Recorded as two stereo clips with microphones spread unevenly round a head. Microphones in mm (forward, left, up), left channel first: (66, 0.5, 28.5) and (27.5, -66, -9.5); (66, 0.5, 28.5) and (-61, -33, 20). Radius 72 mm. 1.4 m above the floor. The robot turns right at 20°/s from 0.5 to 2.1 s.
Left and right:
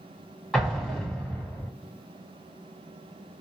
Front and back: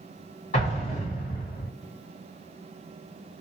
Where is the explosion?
20° right, 1.8 m; by 1.7 s straight ahead, 1.8 m.